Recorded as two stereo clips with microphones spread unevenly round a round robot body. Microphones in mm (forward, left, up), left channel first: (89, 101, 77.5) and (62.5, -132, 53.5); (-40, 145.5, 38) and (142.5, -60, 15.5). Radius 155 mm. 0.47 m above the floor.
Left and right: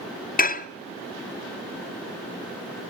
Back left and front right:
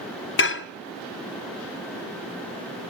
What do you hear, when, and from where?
0.4 s dishes clattering: 120° left, 0.7 m